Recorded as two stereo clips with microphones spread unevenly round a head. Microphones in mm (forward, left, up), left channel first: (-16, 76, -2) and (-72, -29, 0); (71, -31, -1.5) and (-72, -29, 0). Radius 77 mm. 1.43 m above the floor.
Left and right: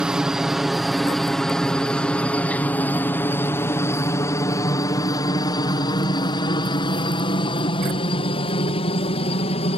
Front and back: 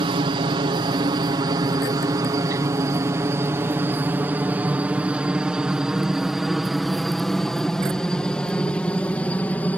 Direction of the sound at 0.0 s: 165° left.